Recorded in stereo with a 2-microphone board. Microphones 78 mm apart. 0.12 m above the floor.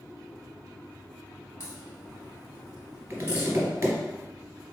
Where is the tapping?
25° right (ahead or behind), 1.7 m.